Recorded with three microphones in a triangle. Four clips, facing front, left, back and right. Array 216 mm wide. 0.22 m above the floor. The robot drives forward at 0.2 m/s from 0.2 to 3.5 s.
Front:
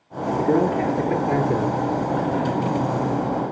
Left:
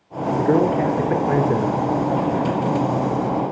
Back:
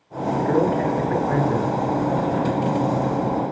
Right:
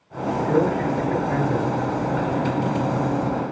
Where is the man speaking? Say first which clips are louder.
Left 3 dB, even; 75° left, 3 m; by 1.8 s 80° left, 3 m.